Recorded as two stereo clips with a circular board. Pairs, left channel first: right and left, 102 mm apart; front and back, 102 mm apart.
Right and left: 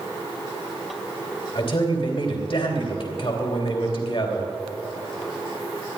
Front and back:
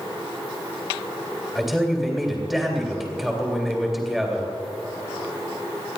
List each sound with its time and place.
1.6 s a man speaking: 90° right, 3 m